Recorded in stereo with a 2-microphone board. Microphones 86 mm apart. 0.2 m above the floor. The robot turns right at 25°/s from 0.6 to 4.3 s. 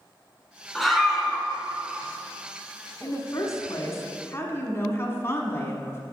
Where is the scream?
5° left (ahead or behind), 1.7 m; by 1.5 s 10° right (ahead or behind), 1.7 m.